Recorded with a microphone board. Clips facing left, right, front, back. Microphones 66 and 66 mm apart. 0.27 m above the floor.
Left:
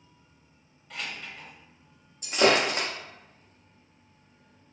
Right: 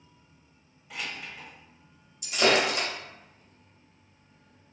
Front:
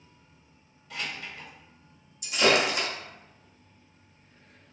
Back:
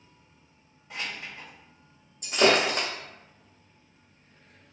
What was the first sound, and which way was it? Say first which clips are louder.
Keys jangling: even, even; 165° right.